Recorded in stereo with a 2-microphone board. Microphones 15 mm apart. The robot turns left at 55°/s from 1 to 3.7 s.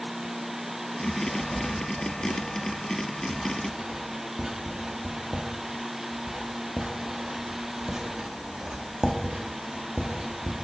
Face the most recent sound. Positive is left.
turn(degrees=-45)  # may be behind; listen again after turning